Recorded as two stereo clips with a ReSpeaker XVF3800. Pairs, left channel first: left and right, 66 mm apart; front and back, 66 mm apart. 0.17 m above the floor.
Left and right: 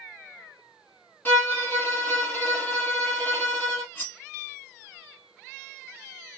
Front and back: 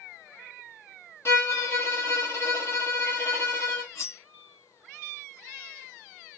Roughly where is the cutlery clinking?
Ahead left.